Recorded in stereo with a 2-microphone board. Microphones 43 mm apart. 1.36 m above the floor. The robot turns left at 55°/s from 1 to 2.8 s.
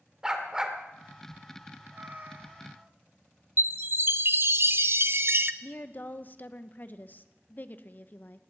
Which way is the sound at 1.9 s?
55° right.